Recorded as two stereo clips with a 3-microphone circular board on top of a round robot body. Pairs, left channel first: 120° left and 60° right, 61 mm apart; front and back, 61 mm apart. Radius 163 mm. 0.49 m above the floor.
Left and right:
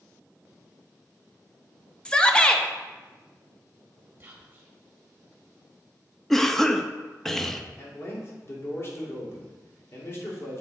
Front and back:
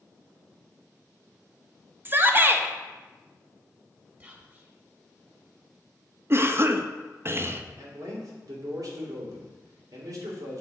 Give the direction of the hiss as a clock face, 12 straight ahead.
I don't hear a hiss.